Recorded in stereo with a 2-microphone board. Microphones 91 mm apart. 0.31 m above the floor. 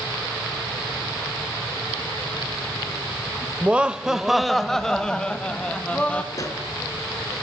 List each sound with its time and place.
3.6 s laughter: 15° right (ahead or behind), 0.8 m; by 6.2 s 15° left (ahead or behind), 2 m
6.3 s a pop: 40° left (ahead or behind), 4 m